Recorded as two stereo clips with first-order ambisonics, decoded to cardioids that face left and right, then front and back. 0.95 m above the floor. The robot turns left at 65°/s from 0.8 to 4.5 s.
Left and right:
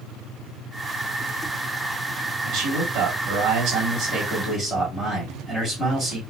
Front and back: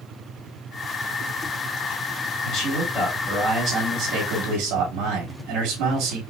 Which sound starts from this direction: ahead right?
A man speaking, at 2.5 s.